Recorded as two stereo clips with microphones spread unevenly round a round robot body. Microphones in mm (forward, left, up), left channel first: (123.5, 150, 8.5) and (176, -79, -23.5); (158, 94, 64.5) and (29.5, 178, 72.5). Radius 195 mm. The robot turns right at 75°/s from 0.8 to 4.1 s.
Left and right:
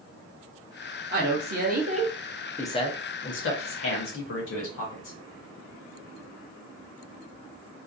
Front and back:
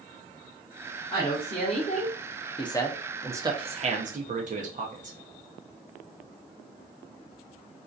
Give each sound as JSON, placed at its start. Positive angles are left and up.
{"t": 1.1, "sound": "a woman speaking", "azimuth_deg": -95, "distance_m": 0.8}